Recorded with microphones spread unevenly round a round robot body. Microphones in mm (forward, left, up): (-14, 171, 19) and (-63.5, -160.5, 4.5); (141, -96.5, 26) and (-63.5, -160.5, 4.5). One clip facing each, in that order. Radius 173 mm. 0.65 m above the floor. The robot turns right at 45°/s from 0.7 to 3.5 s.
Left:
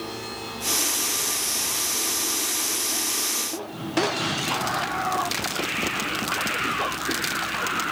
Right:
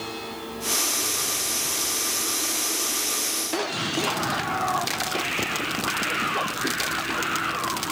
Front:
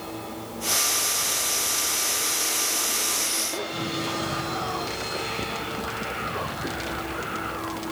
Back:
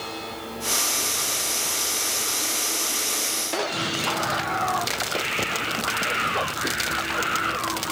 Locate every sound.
Only background noise.